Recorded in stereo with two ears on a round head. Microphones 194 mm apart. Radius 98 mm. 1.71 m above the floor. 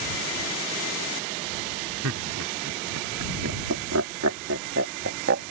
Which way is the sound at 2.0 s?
85° right.